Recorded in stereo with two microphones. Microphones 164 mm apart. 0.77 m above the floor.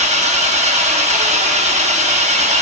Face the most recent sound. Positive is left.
turn(degrees=-45)  # may be behind; listen again after turning